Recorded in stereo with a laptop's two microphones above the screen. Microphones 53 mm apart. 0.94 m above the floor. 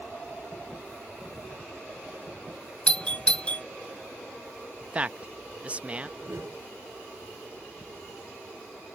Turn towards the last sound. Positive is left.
turn(degrees=-65)  # may be behind; listen again after turning